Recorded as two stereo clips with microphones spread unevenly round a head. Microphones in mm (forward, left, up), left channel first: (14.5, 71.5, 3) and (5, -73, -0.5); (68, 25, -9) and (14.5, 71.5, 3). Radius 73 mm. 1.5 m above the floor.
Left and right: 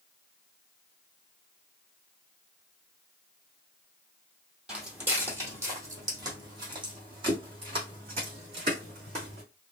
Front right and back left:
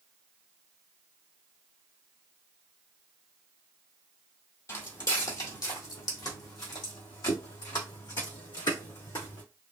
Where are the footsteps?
15° right, 1.9 m; by 9.4 s 50° right, 3.5 m.